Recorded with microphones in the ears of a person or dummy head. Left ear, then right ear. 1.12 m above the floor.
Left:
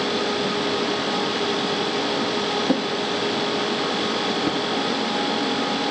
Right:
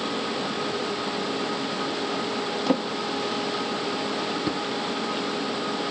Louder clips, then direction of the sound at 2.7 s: Left 3 dB; 15° right (ahead or behind).